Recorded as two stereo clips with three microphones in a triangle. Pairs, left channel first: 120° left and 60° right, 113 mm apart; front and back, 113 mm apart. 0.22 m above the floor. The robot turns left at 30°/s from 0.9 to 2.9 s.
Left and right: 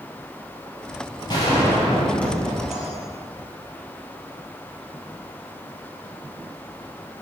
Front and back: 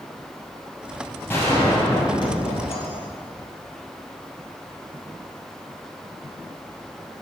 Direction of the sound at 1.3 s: 75° left.